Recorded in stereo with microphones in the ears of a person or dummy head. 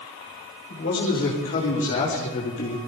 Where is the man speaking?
45° left (ahead or behind), 4 m; by 2.8 s 40° left (ahead or behind), 2.5 m.